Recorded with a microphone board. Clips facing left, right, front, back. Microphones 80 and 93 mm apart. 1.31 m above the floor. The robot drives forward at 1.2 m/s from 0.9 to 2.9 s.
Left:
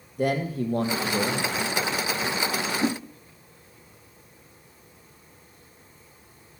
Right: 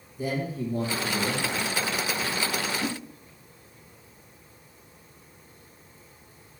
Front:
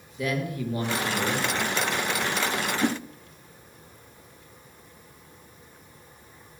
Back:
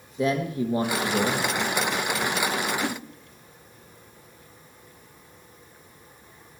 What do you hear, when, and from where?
0.2 s a man speaking: 120° left, 1.2 m; by 1.6 s 140° left, 1.8 m
2.8 s a whoosh: 60° left, 0.5 m; by 3.0 s 75° left, 0.5 m